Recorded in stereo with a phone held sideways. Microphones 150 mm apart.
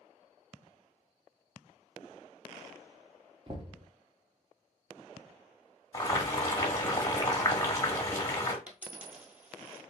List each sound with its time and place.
3.5 s knocking: 35° right (ahead or behind), 0.9 m
5.9 s boiling: 25° left (ahead or behind), 1.2 m
8.7 s a dropped coin: 10° right (ahead or behind), 1.0 m